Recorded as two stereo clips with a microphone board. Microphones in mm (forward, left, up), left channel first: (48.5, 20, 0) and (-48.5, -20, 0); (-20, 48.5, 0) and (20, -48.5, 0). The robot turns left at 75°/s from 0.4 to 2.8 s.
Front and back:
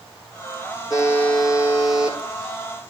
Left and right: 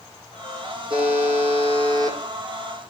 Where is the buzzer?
30° right, 8.5 m; by 2.2 s 125° right, 8.5 m.